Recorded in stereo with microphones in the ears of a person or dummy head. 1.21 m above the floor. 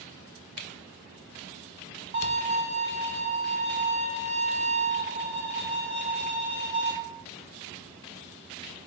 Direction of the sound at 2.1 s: 55° right (ahead or behind).